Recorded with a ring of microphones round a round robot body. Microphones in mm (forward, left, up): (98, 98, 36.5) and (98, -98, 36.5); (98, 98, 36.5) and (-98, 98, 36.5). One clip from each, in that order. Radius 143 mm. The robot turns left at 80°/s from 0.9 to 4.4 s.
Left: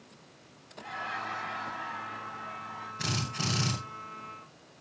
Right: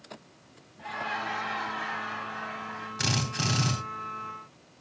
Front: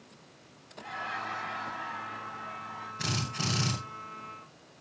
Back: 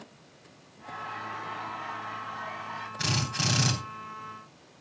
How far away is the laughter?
About 5 m.